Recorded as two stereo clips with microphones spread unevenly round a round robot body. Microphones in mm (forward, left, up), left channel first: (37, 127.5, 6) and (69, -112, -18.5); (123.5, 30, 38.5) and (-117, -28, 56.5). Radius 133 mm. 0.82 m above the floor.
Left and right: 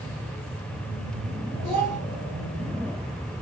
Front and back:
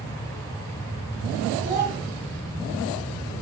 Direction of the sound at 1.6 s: 105° right.